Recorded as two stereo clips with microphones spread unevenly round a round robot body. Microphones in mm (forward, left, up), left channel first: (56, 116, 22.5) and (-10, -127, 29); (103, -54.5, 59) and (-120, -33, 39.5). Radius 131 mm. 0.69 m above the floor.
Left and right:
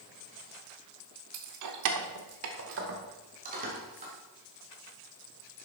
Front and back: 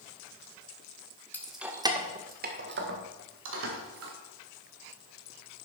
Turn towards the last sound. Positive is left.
turn(degrees=-170)